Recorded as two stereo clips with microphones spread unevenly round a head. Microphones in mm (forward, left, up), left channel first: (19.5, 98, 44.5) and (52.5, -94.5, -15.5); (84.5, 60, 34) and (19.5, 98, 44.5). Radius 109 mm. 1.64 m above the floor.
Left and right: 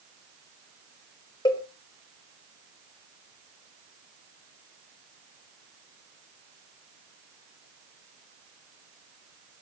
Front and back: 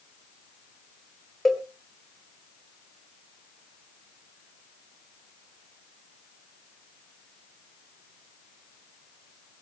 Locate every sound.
1.4 s a cowbell: 60° left, 1.8 m